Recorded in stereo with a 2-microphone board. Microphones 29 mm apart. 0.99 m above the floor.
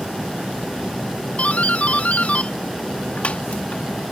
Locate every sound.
1.4 s a doorbell: 55° left (ahead or behind)